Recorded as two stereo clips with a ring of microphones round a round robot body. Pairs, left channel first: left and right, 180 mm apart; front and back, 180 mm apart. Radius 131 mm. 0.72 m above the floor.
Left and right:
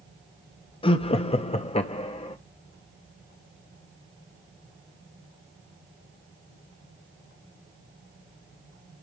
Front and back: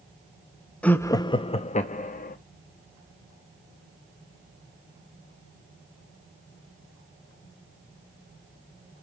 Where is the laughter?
80° left, 0.6 m; by 2.4 s 35° left, 1.1 m.